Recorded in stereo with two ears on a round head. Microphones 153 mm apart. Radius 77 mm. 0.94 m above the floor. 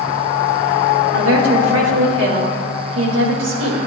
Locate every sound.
1.1 s a woman speaking: 80° right, 4.5 m